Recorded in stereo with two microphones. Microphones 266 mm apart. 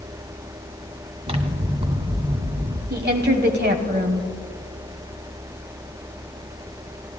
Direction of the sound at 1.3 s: 20° right (ahead or behind).